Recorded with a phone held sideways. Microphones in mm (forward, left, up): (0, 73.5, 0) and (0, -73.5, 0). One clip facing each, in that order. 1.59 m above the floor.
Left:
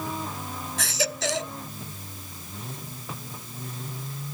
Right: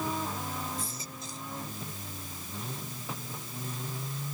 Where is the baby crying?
85° left.